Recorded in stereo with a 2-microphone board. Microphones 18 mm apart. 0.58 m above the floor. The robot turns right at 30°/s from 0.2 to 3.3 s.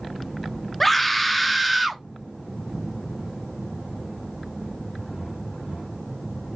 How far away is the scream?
About 0.6 m.